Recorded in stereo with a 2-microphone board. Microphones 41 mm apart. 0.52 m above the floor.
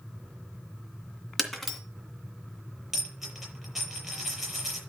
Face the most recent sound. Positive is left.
turn(degrees=-5)  # may be behind; listen again after turning